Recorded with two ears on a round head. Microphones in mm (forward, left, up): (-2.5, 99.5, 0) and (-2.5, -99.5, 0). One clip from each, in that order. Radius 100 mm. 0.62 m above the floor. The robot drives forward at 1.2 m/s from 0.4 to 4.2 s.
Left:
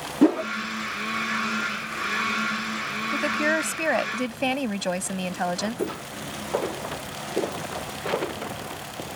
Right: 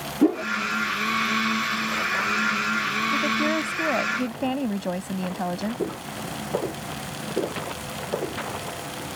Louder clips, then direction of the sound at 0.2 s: Left 1 dB; 55° left (ahead or behind).